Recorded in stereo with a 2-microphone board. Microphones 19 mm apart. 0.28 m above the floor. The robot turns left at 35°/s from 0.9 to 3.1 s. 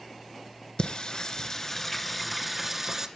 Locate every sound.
0.8 s singing: 50° left (ahead or behind), 1.6 m; by 3.1 s 20° right (ahead or behind), 1.6 m